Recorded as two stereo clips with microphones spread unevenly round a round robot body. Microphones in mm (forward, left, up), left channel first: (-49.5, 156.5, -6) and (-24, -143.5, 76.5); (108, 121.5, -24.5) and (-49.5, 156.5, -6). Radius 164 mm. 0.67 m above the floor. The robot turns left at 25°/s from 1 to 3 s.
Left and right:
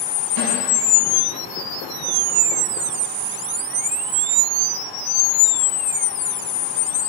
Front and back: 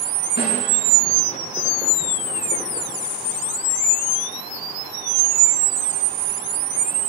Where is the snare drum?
55° right, 6.5 m.